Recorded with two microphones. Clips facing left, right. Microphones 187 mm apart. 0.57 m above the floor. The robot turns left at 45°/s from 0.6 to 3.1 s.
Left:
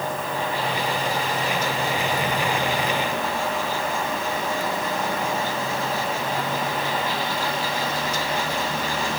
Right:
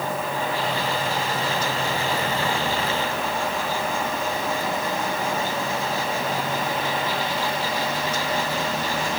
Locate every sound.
Only background noise.